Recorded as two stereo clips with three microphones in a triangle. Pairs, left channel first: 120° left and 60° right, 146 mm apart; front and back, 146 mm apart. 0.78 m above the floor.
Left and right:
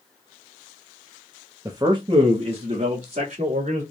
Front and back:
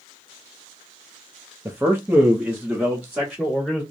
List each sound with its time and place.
1.6 s a man speaking: 115° right, 0.7 m; by 3.8 s 90° right, 1.9 m